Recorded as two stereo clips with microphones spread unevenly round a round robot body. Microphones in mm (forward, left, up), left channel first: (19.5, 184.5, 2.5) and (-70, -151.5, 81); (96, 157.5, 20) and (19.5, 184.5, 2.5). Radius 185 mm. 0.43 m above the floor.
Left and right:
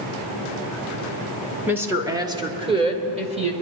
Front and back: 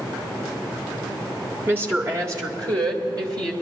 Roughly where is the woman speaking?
Behind left.